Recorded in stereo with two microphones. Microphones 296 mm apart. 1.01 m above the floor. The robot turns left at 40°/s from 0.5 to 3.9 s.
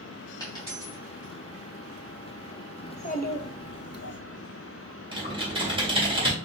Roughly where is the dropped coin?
Centre.